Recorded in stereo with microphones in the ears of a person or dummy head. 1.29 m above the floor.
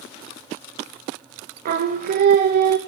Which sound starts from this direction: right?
Singing, at 1.6 s.